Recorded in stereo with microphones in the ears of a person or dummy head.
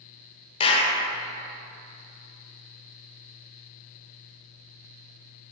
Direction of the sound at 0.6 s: 30° left (ahead or behind).